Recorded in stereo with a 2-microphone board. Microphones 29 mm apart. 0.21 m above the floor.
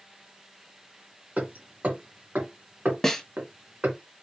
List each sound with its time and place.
1.4 s hammering: 60° right (ahead or behind), 2 m
3.0 s a snare drum: 5° left (ahead or behind), 1.0 m